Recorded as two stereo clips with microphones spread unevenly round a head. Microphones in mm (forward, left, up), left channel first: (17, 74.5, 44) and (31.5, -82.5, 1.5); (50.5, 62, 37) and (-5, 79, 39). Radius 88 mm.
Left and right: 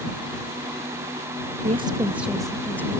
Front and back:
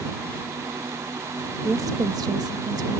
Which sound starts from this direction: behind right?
A woman speaking, at 1.6 s.